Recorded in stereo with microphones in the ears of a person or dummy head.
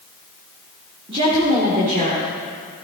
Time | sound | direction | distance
1.1 | a woman speaking | 25° right (ahead or behind) | 2.5 m